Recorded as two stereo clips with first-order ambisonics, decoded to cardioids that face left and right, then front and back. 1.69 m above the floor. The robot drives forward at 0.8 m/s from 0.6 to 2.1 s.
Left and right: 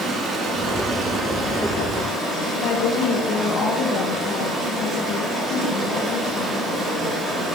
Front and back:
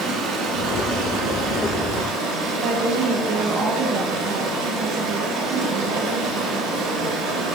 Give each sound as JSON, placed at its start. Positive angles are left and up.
{"t": 0.0, "sound": "running water", "azimuth_deg": -150, "distance_m": 2.5}
{"t": 2.5, "sound": "a woman speaking", "azimuth_deg": 135, "distance_m": 1.3}